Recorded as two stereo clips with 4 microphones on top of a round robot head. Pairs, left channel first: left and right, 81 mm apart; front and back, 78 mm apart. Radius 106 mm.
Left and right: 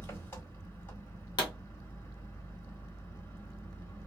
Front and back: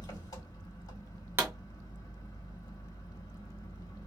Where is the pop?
120° left, 0.9 m.